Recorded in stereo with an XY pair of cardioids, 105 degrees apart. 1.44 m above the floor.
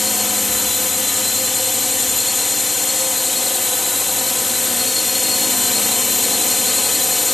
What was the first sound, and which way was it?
A drone, 15° left.